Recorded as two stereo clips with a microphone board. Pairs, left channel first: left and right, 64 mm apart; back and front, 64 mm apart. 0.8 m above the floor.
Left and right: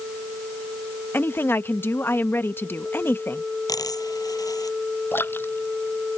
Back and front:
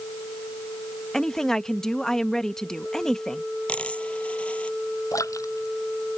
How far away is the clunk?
No clunk in this recording.